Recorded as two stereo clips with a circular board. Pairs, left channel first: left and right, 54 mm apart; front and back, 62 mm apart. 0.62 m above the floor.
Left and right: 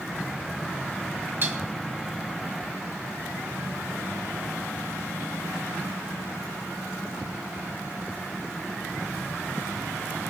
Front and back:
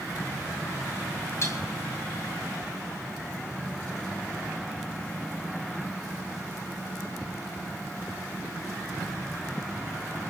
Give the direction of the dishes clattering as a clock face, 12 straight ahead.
1 o'clock.